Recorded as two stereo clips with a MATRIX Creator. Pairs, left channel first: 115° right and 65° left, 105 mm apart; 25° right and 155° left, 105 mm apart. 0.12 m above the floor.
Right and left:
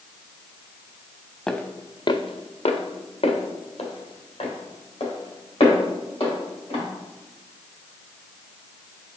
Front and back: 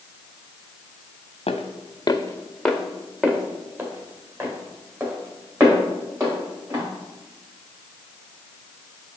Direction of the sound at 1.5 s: 25° right.